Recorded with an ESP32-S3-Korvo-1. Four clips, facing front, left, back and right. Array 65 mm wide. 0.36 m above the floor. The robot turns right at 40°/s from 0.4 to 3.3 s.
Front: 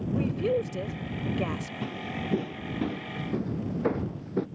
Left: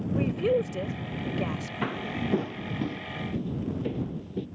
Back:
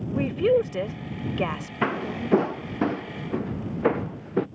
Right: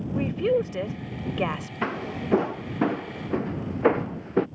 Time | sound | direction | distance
0.1 | a woman speaking | 170° right | ?
1.8 | footsteps | 170° right | ?